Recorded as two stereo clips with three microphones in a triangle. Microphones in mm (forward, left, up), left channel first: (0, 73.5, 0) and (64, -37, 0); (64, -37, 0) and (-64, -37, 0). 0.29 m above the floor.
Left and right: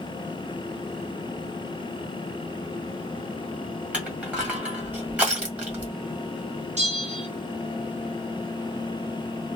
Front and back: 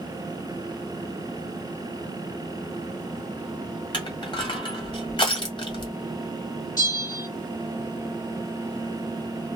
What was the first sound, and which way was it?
Crushing, 15° left.